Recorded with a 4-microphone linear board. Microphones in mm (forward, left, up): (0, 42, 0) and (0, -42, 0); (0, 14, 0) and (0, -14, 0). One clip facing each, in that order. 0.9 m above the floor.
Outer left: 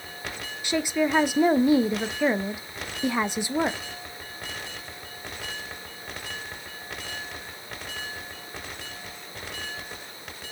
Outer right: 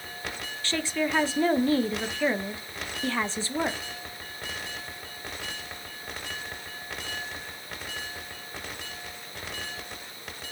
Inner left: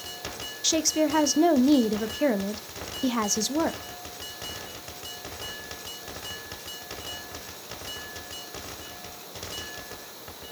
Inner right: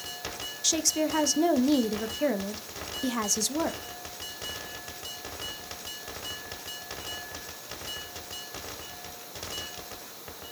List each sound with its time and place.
0.6 s a woman speaking: 15° left (ahead or behind), 0.5 m